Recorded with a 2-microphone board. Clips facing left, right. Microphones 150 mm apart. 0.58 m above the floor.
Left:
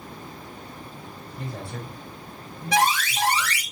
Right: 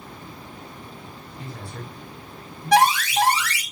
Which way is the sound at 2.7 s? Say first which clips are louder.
Right 5 dB; 65° right (ahead or behind).